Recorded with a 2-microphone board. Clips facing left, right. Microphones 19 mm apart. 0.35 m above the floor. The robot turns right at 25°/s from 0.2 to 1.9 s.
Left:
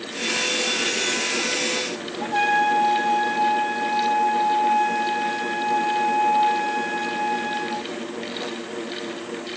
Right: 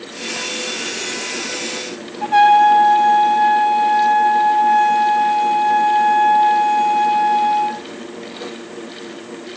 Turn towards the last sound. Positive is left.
turn(degrees=-45)  # may be behind; listen again after turning